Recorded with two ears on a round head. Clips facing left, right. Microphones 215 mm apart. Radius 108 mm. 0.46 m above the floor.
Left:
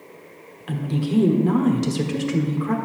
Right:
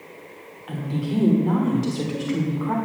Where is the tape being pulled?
No tape being pulled in this recording.